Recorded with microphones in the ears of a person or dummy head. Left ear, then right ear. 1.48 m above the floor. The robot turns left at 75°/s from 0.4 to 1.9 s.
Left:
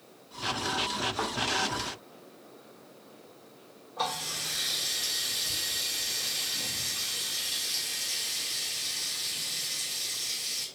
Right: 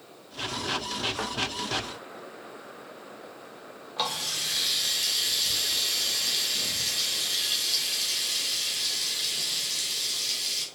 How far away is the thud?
About 0.8 m.